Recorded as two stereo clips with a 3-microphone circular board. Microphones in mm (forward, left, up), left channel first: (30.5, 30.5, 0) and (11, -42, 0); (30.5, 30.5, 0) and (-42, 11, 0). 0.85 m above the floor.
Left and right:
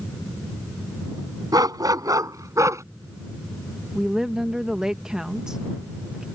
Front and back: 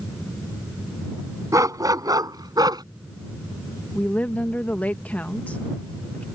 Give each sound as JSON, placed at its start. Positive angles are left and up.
{"t": 1.5, "sound": "a dog barking", "azimuth_deg": -125}
{"t": 4.0, "sound": "a woman speaking", "azimuth_deg": -30}